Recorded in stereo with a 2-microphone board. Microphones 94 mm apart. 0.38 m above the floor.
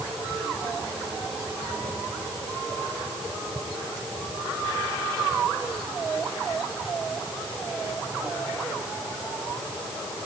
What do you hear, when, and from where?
Only background noise.